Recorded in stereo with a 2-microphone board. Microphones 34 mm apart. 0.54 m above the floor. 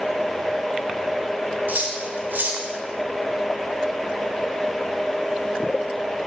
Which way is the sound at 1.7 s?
60° right (ahead or behind).